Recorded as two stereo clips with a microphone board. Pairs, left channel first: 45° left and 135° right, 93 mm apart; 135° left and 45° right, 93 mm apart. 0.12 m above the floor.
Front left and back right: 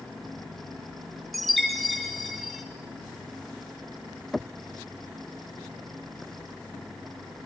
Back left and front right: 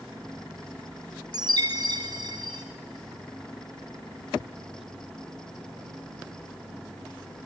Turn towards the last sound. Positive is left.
turn(degrees=-45)